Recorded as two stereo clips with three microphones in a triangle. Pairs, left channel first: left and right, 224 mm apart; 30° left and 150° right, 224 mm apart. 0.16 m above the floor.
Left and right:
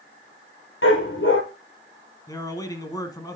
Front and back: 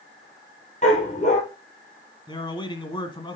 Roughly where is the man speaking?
Ahead left.